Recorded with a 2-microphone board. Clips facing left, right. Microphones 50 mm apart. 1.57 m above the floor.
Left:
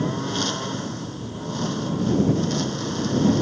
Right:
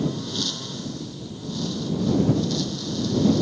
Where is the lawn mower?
45° left (ahead or behind).